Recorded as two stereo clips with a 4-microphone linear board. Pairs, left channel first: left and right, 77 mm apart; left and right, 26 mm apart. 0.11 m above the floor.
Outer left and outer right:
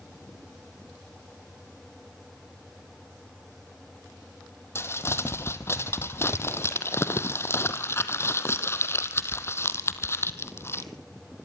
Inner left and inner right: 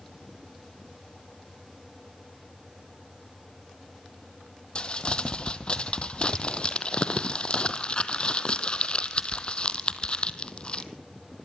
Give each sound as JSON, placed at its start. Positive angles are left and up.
{"t": 4.8, "sound": "crumpling", "side_deg": 35, "distance_m": 1.3}